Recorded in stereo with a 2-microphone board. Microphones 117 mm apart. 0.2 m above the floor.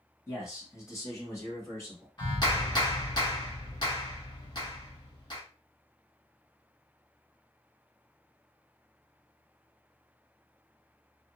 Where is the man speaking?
25° left (ahead or behind), 1.6 m.